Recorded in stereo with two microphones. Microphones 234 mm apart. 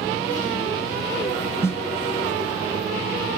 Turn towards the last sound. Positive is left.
turn(degrees=10)  # may be behind; listen again after turning